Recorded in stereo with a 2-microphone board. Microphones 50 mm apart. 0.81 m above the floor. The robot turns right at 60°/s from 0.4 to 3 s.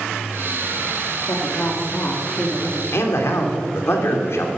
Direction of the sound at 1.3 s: 85° left.